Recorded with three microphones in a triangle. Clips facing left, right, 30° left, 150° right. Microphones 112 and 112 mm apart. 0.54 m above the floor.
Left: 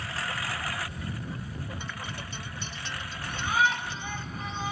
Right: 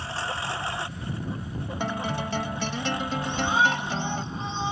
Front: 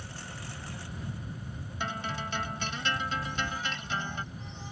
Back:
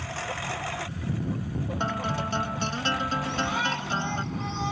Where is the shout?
155° right.